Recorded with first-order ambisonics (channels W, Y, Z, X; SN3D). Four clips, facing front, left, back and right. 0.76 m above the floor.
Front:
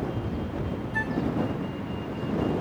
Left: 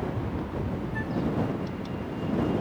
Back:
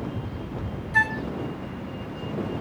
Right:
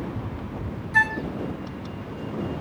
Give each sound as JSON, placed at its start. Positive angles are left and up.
{"t": 0.9, "sound": "a flute", "azimuth_deg": -120}